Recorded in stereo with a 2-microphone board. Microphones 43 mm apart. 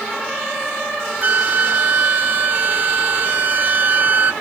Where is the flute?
45° right (ahead or behind).